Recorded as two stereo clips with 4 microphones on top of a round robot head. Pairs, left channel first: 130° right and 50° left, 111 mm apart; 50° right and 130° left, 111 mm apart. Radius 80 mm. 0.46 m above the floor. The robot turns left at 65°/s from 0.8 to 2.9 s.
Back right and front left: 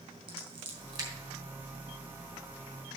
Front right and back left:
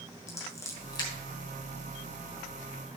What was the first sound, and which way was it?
Scissors, 10° left.